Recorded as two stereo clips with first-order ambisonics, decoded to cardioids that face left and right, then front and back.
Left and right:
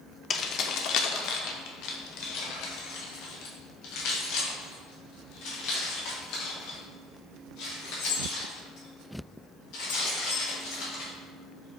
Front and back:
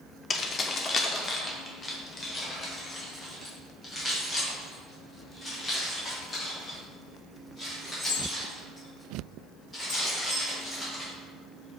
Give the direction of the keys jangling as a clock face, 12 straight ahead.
10 o'clock.